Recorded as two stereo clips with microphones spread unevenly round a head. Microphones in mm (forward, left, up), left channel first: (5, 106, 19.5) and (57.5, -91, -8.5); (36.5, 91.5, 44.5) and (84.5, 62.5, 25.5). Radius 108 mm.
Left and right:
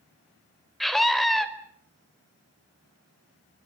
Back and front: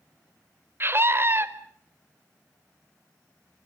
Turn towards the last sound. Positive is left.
turn(degrees=15)